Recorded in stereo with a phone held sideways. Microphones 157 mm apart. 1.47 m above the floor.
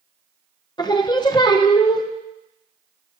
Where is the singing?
25° left (ahead or behind), 0.6 m.